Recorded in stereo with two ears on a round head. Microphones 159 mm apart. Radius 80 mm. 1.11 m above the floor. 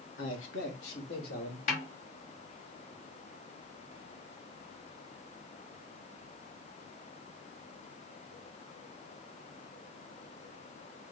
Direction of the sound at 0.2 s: 70° left (ahead or behind).